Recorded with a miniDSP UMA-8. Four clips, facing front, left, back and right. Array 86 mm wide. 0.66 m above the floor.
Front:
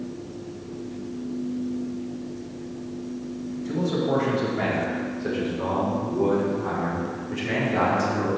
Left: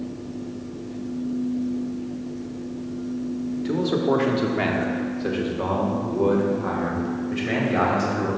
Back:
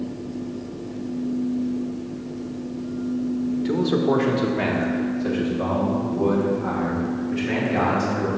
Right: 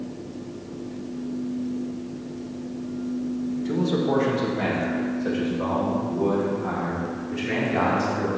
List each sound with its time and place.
3.6 s a man speaking: 135° left, 1.4 m; by 8.3 s 75° left, 4.5 m